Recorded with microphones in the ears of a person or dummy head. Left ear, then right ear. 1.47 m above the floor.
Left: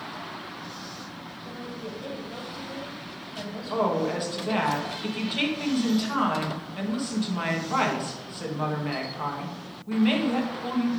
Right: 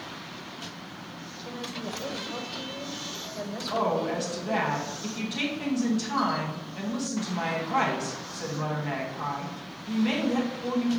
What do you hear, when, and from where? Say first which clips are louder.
1.4 s a woman speaking: right 3 dB; 60° right (ahead or behind), 1.6 m
3.7 s a woman speaking: left 1 dB; 15° left (ahead or behind), 1.4 m